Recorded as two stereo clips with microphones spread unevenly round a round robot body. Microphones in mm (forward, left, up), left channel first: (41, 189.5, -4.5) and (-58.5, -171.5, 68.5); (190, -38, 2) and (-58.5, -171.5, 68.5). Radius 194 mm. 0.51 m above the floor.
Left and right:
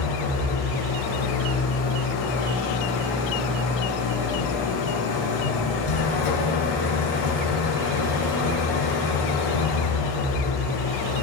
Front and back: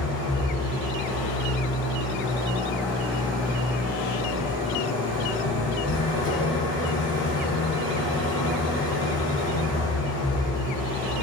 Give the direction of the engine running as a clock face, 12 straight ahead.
9 o'clock.